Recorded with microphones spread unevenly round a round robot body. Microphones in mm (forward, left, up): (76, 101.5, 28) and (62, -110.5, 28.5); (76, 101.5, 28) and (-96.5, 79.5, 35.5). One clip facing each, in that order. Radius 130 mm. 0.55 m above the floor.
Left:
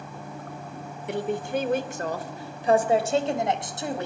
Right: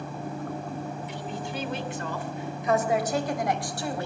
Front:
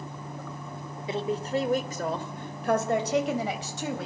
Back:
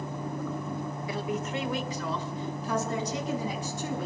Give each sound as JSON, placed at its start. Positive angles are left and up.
{"t": 1.1, "sound": "a woman speaking", "azimuth_deg": 70, "distance_m": 2.0}